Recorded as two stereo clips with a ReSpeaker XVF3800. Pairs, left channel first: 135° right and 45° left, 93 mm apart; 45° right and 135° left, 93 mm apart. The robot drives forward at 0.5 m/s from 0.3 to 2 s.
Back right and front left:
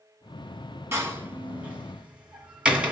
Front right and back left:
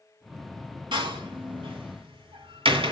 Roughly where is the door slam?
Left.